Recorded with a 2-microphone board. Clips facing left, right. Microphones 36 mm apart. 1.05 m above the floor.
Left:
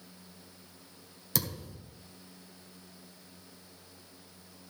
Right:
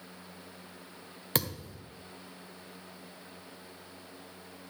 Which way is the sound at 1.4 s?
45° right (ahead or behind).